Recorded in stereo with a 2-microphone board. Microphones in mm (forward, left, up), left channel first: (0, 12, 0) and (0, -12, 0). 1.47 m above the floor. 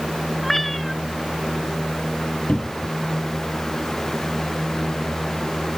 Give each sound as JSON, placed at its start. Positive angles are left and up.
{"t": 0.4, "sound": "a cat meowing", "side_deg": 0}
{"t": 2.5, "sound": "a cupboard door", "side_deg": 45}